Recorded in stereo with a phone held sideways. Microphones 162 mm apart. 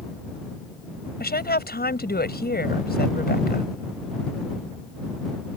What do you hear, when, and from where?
1.2 s a woman speaking: 80° left